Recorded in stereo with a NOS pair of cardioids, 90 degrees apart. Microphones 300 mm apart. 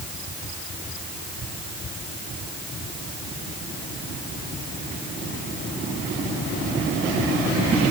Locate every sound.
Only background noise.